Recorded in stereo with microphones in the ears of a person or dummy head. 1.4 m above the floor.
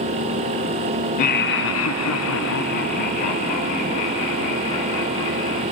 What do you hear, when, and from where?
1.2 s laughter: 50° left (ahead or behind), 0.8 m; by 5.6 s 25° left (ahead or behind), 3 m